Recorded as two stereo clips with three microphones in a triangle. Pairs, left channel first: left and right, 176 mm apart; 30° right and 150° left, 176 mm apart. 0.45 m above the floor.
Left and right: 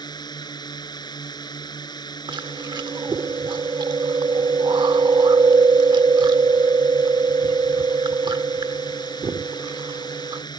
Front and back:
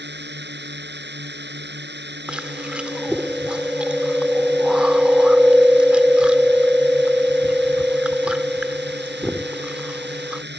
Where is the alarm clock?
No alarm clock in this recording.